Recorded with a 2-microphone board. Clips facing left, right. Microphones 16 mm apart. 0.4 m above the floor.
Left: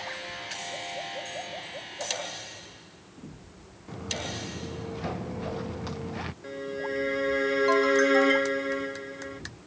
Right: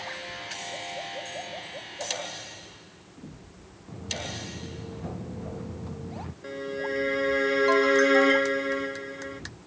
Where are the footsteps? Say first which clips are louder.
Left 1 dB; 50° left (ahead or behind); by 6.3 s 65° left (ahead or behind).